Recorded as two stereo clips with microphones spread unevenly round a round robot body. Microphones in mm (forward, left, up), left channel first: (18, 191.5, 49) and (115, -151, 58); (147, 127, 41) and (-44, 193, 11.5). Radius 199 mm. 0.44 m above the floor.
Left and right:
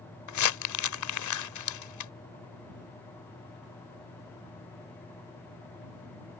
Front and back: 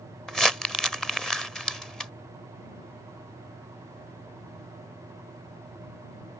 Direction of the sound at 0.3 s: 75° left.